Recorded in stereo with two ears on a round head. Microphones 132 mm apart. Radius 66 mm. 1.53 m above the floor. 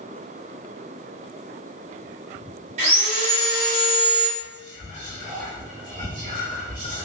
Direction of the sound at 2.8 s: 45° right (ahead or behind).